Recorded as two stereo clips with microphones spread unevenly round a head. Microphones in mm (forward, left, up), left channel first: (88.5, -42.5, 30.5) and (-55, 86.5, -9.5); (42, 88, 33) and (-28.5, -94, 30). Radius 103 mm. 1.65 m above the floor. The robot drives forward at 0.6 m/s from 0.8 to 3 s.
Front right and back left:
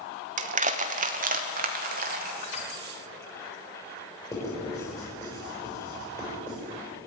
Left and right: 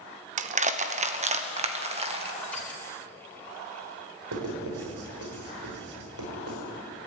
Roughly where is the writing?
Behind right.